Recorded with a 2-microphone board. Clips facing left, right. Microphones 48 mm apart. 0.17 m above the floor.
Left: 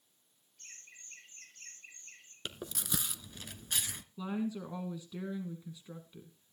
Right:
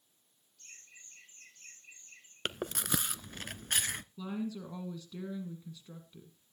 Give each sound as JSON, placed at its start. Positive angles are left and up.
{"t": 0.6, "sound": "laughter", "side_deg": 40, "distance_m": 6.5}
{"t": 2.5, "sound": "chewing", "side_deg": -55, "distance_m": 0.6}
{"t": 4.2, "sound": "a woman speaking", "side_deg": 15, "distance_m": 1.6}